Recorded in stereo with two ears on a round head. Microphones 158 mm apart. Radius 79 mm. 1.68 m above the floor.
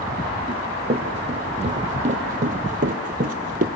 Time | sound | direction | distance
0.5 | running footsteps | 35° right (ahead or behind) | 3.5 m